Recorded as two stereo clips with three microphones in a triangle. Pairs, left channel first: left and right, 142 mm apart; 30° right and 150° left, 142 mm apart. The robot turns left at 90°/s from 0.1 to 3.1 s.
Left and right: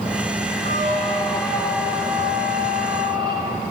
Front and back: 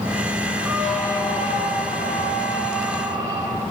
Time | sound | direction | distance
0.7 | a squeak | 85° left | 2.5 m